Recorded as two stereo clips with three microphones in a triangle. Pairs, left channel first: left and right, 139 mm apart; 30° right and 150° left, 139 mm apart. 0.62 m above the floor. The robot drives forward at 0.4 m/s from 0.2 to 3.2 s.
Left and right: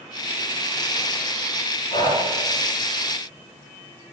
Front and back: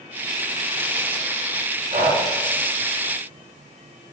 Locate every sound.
1.9 s breathing: 135° left, 0.7 m; by 2.2 s 140° left, 0.8 m